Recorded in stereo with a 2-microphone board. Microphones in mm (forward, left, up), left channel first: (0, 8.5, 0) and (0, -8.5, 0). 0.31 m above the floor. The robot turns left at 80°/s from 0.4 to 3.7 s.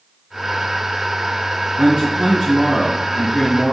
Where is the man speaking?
135° right, 3.5 m; by 3.7 s 70° left, 3.5 m.